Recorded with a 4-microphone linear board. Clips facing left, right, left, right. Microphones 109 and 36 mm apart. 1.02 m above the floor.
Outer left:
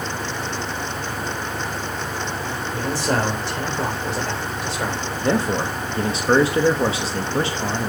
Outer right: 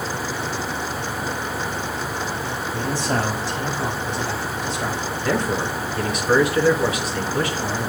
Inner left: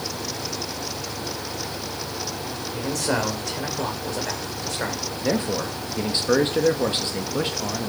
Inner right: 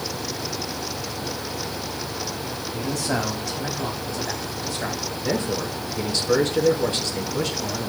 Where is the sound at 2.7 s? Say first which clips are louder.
Outer left 2 dB, inner left 1 dB; 75° left (ahead or behind), 4 m.